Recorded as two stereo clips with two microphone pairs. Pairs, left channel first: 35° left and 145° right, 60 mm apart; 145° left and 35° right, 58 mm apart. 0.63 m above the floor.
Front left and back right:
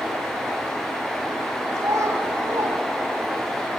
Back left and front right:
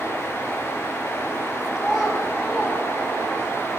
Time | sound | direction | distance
1.8 | a child speaking | 135° right | 4 m